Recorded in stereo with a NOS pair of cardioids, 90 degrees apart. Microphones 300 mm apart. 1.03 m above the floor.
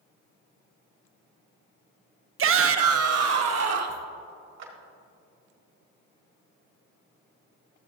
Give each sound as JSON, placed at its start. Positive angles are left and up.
{"t": 2.4, "sound": "a shout", "azimuth_deg": -40, "distance_m": 0.6}
{"t": 4.6, "sound": "a clap", "azimuth_deg": -55, "distance_m": 2.0}